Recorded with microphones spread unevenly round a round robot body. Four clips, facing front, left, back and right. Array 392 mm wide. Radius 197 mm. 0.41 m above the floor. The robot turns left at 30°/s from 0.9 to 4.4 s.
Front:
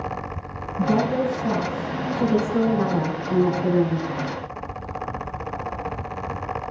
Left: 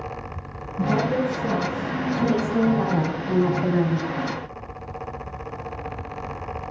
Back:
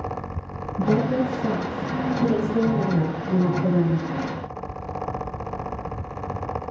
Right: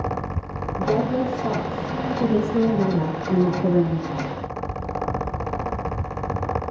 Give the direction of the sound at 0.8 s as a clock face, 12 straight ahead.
6 o'clock.